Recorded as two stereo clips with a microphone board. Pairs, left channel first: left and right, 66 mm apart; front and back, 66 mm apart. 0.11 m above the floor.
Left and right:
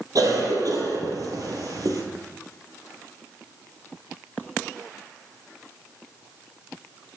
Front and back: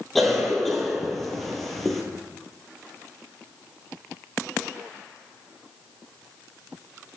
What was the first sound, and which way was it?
A cough, 90° right.